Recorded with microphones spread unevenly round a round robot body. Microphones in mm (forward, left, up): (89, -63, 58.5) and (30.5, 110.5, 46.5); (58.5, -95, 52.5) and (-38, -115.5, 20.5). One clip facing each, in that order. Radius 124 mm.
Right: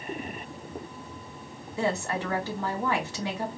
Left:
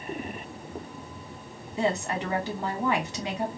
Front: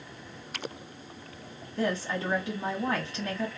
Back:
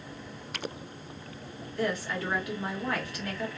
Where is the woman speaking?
80° left, 1.3 m.